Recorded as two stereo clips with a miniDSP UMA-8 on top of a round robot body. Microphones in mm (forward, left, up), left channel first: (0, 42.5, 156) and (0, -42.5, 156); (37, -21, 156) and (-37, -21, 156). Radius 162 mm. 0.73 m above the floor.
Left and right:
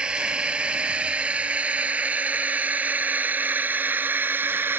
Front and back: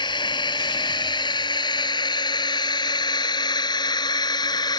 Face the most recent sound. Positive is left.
turn(degrees=-25)